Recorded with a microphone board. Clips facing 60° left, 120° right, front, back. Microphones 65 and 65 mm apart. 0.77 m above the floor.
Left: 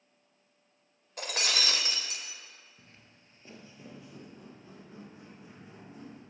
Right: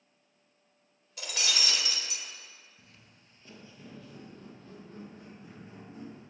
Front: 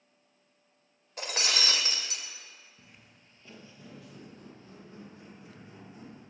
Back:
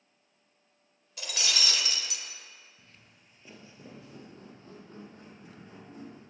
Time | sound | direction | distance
1.2 | breaking glass | 35° left | 0.6 m
2.8 | footsteps | 55° left | 0.8 m